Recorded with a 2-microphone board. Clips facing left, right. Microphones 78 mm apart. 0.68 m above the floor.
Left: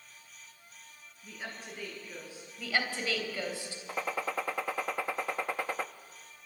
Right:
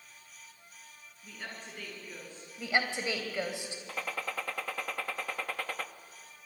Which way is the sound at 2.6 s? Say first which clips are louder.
Right 2 dB; 20° right (ahead or behind).